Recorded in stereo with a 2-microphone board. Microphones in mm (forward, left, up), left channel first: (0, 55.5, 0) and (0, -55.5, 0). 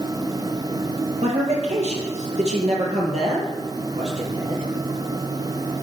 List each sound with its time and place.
1.2 s a man speaking: 75° right (ahead or behind), 7 m; by 4.7 s 70° right (ahead or behind), 6 m